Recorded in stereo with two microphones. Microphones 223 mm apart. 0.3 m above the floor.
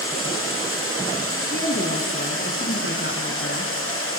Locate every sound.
0.0 s running water: 70° left (ahead or behind), 5 m
1.4 s a woman speaking: 50° left (ahead or behind), 3 m